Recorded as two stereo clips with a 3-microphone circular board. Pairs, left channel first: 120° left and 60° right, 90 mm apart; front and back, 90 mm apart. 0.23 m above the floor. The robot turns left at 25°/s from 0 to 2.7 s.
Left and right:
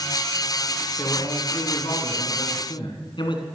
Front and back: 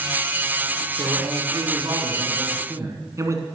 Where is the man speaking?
175° left, 2.5 m; by 3.4 s 130° left, 2.5 m.